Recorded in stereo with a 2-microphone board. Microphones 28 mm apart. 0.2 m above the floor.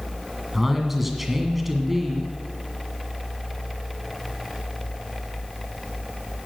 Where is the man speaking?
10° right (ahead or behind), 1.8 m.